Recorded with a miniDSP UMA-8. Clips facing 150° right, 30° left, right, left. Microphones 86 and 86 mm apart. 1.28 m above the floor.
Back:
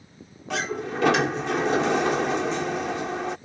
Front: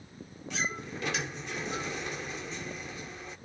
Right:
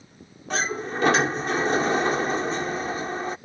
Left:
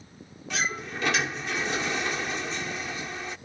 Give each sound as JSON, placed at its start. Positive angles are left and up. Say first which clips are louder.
{"t": 0.5, "sound": "a sliding door", "louder": "back 8 dB, right 5 dB", "azimuth_deg": -145}